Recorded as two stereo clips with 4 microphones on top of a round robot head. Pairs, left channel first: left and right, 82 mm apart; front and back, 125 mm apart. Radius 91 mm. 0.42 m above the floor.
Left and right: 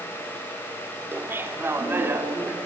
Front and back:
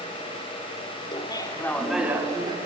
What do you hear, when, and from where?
1.1 s laughter: 30° right, 1.3 m; by 2.6 s 155° right, 1.2 m